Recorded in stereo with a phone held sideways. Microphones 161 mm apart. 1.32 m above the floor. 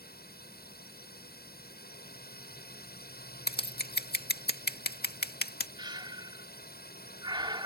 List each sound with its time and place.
0.0 s a drone: 75° left (ahead or behind)
3.5 s scissors: 85° left
5.8 s breathing: 30° right (ahead or behind)